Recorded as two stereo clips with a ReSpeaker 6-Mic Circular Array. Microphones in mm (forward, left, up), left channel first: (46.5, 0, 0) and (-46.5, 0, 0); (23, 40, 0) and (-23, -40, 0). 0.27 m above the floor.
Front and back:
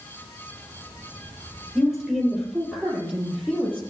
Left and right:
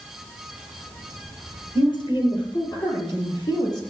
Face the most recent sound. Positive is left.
turn(degrees=105)